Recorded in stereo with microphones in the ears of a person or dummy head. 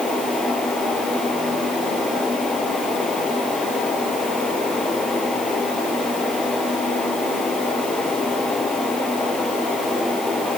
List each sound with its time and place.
Only background noise.